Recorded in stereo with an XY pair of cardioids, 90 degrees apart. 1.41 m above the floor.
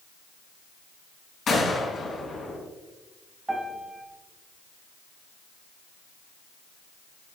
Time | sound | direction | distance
1.5 | a gunshot | 55° left | 5 m
3.5 | a piano | 25° right | 3.5 m